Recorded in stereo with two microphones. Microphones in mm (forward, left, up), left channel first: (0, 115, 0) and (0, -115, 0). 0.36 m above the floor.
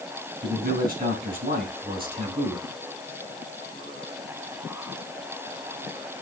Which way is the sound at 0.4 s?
40° right (ahead or behind).